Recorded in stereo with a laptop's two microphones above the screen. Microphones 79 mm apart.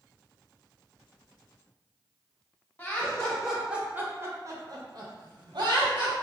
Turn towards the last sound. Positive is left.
turn(degrees=-70)  # may be behind; listen again after turning